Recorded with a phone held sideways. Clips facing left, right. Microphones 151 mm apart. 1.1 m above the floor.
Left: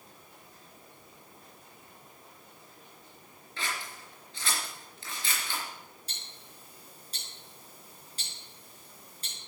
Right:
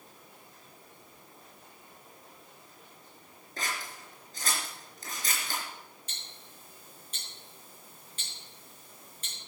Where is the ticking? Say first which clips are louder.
Even; 40° left (ahead or behind), 4.5 m.